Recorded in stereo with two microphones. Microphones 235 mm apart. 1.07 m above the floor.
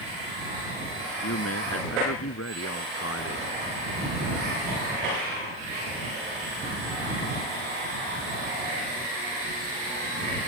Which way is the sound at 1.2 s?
85° left.